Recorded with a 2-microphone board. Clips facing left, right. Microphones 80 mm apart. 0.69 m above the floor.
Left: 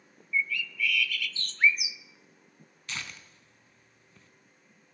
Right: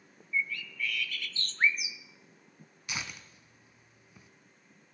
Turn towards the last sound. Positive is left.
turn(degrees=-15)  # may be behind; listen again after turning